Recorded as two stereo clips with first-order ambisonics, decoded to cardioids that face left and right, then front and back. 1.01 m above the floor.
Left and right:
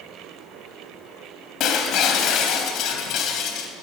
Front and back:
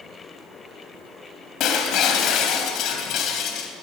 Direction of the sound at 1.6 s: 45° left.